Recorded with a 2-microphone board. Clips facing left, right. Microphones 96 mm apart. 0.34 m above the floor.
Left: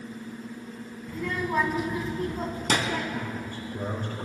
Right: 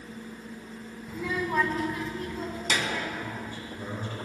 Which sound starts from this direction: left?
A man speaking, at 3.1 s.